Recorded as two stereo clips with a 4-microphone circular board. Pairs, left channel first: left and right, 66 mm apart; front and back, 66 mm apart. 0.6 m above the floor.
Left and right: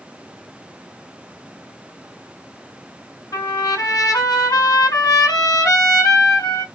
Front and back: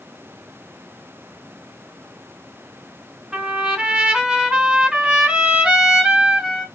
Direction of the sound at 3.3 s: 105° left.